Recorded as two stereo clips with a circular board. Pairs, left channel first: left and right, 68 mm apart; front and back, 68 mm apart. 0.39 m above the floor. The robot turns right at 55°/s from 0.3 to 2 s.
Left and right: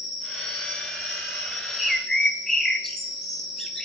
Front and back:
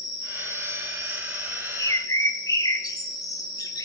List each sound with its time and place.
0.0 s an insect: 105° right, 5 m; by 3.9 s 10° right, 5 m
1.8 s a bird: 5° right, 1.3 m; by 3.9 s 5° left, 1.3 m